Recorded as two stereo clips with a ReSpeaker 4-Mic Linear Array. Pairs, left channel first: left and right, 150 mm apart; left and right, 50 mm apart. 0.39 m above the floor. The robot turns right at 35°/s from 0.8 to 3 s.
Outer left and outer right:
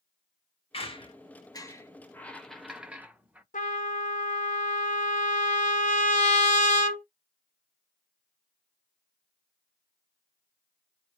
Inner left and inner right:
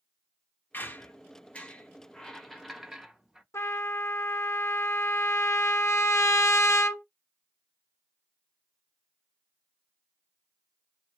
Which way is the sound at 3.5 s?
60° left (ahead or behind).